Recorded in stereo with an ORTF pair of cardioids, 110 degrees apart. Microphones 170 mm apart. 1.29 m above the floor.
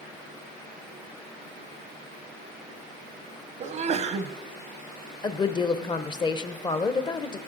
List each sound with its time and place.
3.6 s a sneeze: 45° right, 0.6 m
5.2 s a woman speaking: 25° left, 0.8 m